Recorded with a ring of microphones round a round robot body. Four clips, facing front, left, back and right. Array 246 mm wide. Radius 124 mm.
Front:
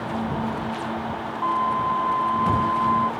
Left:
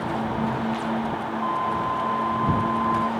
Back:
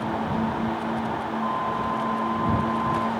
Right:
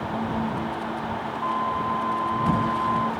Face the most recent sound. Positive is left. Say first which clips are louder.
# even, front 7 dB
turn(degrees=-5)